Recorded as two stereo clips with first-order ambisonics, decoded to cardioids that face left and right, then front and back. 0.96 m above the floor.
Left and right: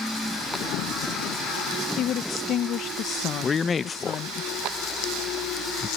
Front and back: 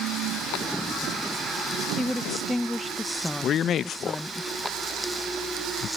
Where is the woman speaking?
85° left.